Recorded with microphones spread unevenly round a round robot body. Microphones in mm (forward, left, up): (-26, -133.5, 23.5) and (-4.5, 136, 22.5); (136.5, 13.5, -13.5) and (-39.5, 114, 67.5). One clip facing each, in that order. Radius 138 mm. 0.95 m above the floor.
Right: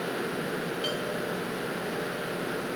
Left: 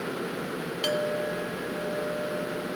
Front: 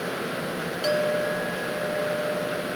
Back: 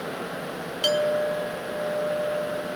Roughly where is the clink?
Left.